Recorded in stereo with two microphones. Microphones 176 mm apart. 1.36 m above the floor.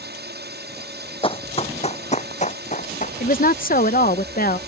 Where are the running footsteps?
30° left (ahead or behind); by 3.1 s 45° left (ahead or behind).